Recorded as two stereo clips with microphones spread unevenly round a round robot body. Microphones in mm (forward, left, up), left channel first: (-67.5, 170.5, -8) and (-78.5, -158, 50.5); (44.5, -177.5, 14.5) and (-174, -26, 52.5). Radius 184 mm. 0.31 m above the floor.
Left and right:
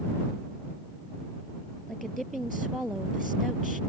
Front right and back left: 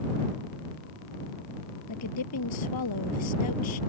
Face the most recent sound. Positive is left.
turn(degrees=0)